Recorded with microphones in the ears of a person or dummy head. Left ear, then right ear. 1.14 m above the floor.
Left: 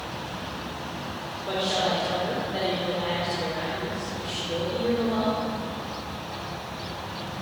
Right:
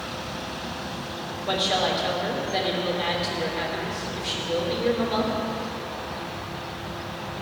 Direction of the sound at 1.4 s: 35° right (ahead or behind).